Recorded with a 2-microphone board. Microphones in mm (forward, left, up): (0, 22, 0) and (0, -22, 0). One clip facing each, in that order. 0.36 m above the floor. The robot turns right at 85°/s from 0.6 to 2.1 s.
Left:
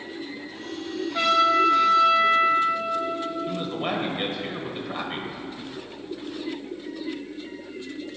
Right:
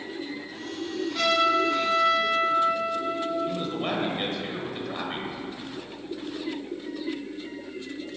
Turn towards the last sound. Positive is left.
turn(degrees=10)  # may be behind; listen again after turning